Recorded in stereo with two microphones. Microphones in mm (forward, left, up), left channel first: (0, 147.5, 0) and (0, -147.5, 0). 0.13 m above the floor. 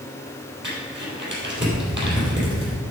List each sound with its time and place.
0.6 s crumpling: 40° right (ahead or behind), 3.5 m